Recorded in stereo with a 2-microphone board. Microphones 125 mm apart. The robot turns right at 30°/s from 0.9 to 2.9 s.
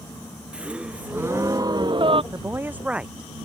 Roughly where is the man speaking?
Right.